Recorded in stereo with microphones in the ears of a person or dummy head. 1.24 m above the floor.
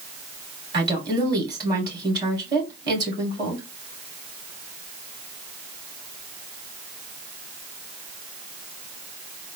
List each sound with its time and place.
0.7 s a woman speaking: 25° right (ahead or behind), 2.5 m